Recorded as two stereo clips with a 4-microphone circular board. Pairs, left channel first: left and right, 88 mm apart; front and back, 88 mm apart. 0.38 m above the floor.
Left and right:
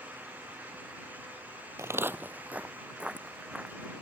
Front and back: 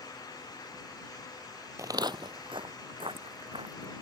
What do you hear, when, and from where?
1.8 s footsteps: 135° right; by 3.9 s 170° right